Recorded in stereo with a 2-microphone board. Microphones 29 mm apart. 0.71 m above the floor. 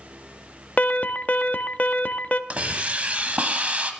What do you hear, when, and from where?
0.8 s an alarm: 60° left (ahead or behind), 0.5 m
2.5 s a hiss: 55° right (ahead or behind), 1.1 m